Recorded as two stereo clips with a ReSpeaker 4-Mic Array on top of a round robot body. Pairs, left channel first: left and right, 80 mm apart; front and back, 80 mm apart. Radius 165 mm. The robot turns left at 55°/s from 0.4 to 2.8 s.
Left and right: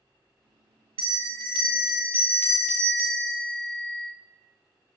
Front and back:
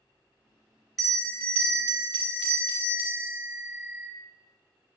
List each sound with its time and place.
1.0 s a bell: 85° right, 0.7 m; by 4.1 s 175° left, 0.7 m